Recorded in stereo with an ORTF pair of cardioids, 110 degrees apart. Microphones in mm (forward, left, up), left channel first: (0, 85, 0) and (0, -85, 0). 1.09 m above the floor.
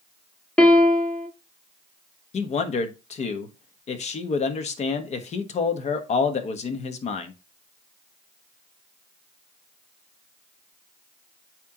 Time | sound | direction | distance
0.6 | a piano | 5° left | 1.2 m
2.3 | a man speaking | 45° left | 1.2 m